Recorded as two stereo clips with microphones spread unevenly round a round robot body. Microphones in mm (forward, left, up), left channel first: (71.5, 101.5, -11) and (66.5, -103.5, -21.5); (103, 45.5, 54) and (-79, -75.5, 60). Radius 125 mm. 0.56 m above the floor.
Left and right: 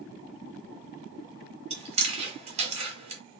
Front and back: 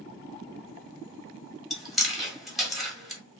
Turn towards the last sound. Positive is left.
turn(degrees=-55)